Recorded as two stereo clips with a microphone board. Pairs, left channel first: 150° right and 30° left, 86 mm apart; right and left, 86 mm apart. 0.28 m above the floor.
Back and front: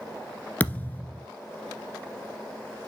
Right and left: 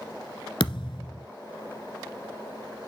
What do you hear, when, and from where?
0.6 s a thud: 80° right, 1.5 m